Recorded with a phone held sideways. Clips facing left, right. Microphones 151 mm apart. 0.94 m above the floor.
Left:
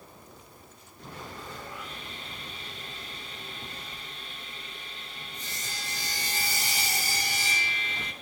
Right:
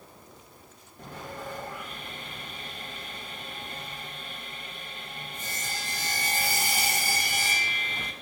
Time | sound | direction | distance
1.0 | sawing | 50° right (ahead or behind) | 0.9 m